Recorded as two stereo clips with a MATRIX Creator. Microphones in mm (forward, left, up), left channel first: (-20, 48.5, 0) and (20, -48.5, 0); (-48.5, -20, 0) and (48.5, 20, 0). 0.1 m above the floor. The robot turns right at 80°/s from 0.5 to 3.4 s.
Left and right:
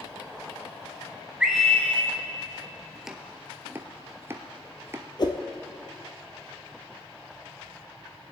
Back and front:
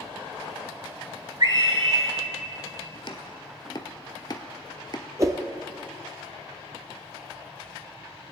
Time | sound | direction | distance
1.4 | a scream | 5° left | 2.0 m
3.0 | chopping | 160° right | 0.8 m
5.2 | a whoosh | 75° left | 0.9 m